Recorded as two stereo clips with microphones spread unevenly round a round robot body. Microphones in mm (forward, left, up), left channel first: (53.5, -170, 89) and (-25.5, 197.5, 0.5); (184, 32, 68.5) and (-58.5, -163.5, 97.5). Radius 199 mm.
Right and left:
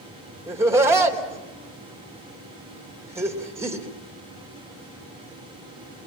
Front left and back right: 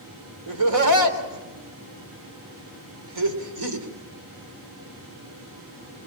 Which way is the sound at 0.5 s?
175° right.